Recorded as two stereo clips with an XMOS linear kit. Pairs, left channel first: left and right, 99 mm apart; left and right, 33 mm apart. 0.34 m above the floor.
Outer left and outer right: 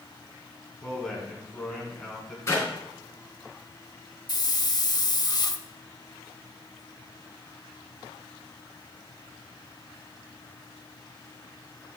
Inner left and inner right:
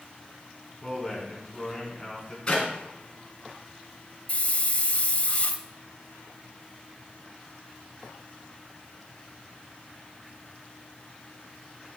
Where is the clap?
30° left (ahead or behind), 3 m.